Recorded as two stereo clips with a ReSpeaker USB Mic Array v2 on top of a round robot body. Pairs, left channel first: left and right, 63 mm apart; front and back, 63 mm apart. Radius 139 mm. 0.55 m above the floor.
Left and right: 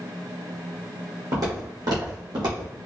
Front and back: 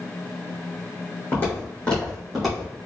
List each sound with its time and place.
1.3 s footsteps: 60° right, 1.9 m; by 2.7 s 100° right, 1.8 m